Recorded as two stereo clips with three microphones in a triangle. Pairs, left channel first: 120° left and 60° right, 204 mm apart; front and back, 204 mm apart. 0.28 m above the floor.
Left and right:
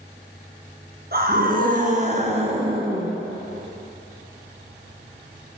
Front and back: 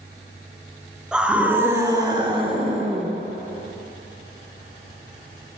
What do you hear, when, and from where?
1.1 s a scream: 95° right, 4 m; by 3.1 s 130° right, 3.5 m